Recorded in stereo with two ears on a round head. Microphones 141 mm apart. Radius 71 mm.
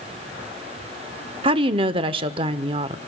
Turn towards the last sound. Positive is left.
turn(degrees=-30)  # may be behind; listen again after turning